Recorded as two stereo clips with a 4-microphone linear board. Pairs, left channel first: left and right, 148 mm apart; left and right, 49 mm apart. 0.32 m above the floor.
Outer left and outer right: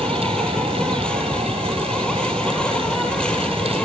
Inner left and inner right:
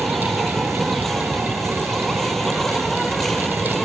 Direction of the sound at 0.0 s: 5° left (ahead or behind).